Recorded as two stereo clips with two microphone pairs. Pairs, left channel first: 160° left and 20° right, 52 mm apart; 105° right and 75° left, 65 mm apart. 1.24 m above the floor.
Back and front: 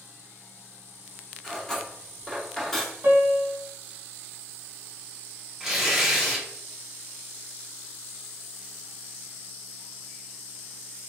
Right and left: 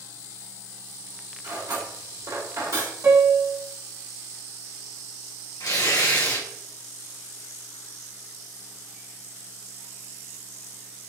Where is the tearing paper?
100° right, 2.0 m.